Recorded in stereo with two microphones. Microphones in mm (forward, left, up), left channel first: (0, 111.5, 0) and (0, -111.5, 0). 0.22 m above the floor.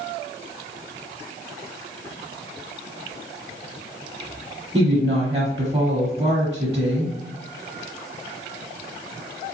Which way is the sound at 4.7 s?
25° right (ahead or behind).